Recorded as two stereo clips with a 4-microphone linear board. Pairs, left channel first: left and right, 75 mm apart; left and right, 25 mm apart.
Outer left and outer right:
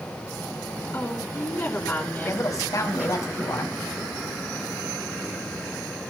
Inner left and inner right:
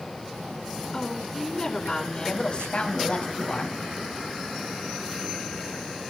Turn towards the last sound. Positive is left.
turn(degrees=45)  # may be behind; listen again after turning